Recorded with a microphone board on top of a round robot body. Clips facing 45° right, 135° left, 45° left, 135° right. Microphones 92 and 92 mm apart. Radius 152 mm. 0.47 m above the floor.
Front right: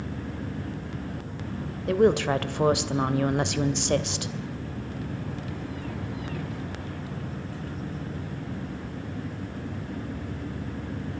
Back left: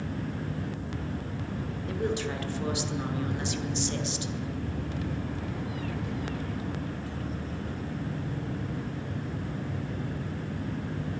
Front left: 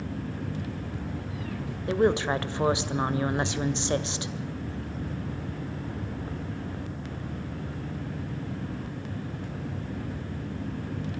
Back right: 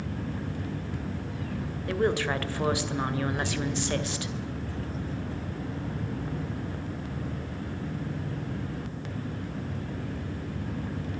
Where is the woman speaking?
25° right, 2 m.